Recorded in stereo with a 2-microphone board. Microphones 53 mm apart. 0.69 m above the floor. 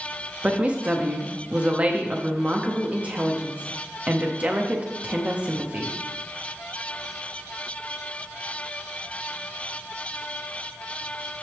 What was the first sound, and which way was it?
A woman speaking, 30° right (ahead or behind).